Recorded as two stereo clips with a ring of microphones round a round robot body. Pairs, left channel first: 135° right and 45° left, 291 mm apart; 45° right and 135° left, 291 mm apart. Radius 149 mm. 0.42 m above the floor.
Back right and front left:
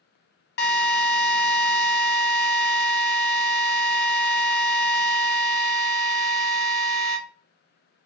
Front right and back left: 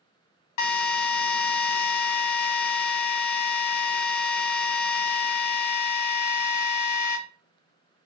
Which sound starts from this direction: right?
A drill, at 0.6 s.